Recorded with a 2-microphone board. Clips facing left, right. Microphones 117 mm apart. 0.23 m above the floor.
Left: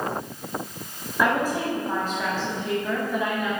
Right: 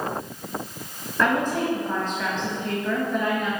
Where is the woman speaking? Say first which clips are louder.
Right 1 dB; 10° left (ahead or behind), 1.1 m.